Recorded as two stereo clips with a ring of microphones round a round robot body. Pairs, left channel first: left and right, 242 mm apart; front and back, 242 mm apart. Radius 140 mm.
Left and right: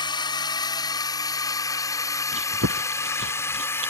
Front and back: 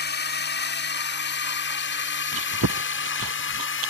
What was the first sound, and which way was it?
A drone, 25° left.